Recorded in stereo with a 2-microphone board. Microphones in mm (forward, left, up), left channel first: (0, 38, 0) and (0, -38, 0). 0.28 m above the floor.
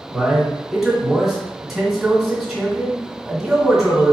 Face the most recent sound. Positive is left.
turn(degrees=-5)  # may be behind; listen again after turning